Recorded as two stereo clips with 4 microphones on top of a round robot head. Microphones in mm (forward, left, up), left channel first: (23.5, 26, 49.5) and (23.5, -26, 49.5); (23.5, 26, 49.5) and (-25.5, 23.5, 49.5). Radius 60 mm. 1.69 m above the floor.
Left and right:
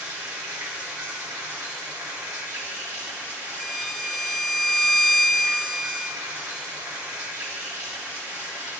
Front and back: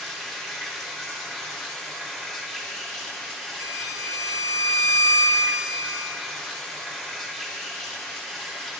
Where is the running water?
80° right, 2 m.